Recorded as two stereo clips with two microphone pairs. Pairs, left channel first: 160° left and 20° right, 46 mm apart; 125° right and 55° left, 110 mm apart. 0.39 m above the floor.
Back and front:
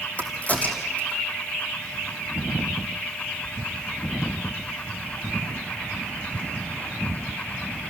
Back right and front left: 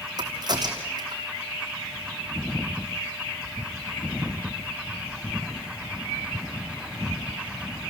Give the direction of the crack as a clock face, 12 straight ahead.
9 o'clock.